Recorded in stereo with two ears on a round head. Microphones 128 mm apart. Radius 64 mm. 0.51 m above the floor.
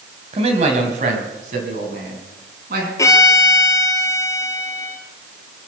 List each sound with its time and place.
0.3 s a man speaking: 40° right (ahead or behind), 3 m; by 2.9 s 70° right (ahead or behind), 5.5 m
3.0 s a violin: 25° left (ahead or behind), 1.8 m